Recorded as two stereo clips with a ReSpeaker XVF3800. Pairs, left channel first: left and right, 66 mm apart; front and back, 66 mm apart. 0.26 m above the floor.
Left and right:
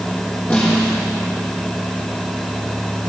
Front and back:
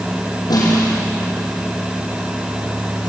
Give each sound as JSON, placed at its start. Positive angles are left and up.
{"t": 0.5, "sound": "a snare drum", "azimuth_deg": 20, "distance_m": 9.5}